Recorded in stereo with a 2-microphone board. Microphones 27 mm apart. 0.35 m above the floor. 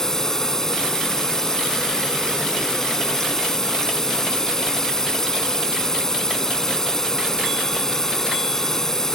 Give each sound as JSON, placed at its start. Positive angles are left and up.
{"t": 0.0, "sound": "a drone", "side_deg": 15}